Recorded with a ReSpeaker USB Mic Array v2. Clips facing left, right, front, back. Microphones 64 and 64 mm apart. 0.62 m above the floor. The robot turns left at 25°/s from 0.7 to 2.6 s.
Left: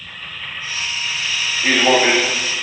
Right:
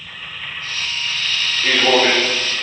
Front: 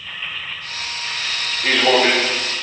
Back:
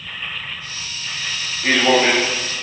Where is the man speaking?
110° left, 1.1 m; by 2.3 s 95° left, 1.1 m.